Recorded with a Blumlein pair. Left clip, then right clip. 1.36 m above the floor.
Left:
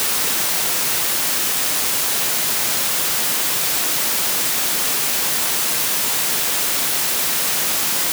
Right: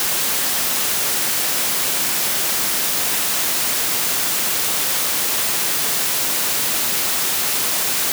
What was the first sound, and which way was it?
Only background noise.